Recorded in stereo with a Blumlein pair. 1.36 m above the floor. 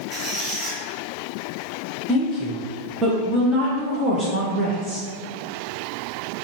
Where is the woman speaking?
10° right, 0.7 m.